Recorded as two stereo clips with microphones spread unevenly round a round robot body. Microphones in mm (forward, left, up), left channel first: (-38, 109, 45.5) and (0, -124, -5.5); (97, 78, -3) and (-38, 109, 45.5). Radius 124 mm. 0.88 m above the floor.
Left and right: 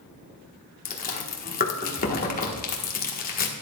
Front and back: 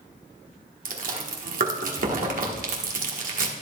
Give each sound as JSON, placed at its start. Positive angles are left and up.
{"t": 0.8, "sound": "chewing", "azimuth_deg": 155, "distance_m": 1.5}